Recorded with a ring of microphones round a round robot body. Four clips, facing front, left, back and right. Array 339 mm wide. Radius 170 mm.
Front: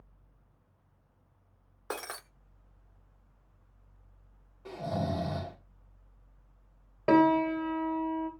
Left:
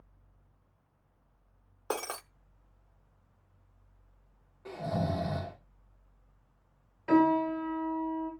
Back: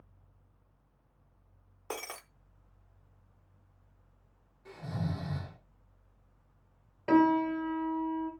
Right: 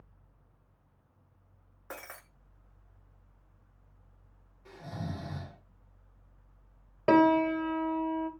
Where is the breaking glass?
80° left, 0.8 m.